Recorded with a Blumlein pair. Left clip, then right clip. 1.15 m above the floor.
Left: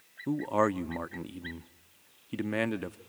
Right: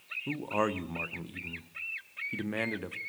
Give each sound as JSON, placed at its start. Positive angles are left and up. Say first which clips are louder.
{"t": 0.3, "sound": "a man speaking", "louder": "left 4 dB", "azimuth_deg": 10, "distance_m": 0.8}